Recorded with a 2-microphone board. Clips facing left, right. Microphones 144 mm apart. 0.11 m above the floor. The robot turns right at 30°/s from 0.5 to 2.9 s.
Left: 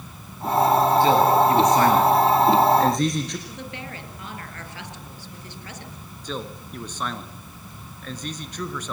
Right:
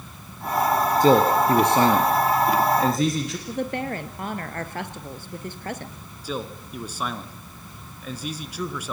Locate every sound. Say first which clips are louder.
1.0 s a man speaking: right 4 dB; 60° right, 2 m; by 3.4 s 5° right, 2 m
3.5 s a woman speaking: right 9 dB; 50° right (ahead or behind), 1.7 m
6.2 s a man speaking: right 2 dB; 5° right (ahead or behind), 1.3 m